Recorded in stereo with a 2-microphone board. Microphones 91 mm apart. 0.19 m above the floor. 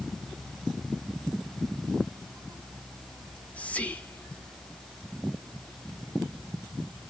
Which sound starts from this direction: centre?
Whispering, at 3.2 s.